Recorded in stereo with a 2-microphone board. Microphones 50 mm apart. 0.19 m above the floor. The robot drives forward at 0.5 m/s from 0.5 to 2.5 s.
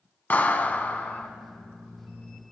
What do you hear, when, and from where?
0.3 s a clap: 35° left (ahead or behind), 0.9 m; by 1.3 s 30° left (ahead or behind), 1.1 m